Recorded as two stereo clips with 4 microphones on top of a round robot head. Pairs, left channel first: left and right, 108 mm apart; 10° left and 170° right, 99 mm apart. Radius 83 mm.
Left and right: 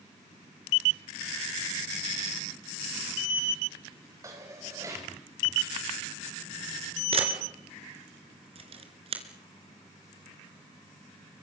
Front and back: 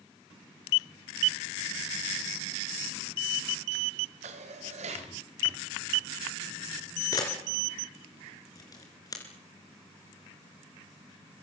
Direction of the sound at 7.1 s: 60° right.